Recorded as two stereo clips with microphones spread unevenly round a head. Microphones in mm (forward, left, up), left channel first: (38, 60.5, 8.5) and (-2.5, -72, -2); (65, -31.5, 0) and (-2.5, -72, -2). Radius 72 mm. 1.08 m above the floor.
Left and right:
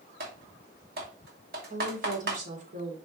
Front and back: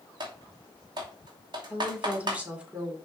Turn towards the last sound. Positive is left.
turn(degrees=-75)